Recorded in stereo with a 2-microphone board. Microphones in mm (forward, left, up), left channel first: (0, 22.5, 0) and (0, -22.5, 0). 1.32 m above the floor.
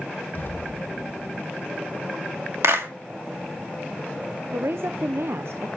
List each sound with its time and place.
0.3 s an explosion: 50° left (ahead or behind), 2 m
2.6 s a clap: 75° right (ahead or behind), 2 m
4.5 s a woman speaking: 65° right (ahead or behind), 0.6 m